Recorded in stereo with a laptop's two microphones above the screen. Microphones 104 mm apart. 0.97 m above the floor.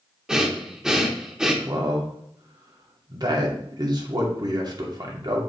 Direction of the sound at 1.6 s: 45° right (ahead or behind).